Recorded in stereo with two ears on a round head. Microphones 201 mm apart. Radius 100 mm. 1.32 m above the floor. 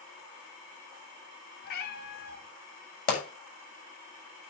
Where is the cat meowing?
45° left (ahead or behind), 1.6 m.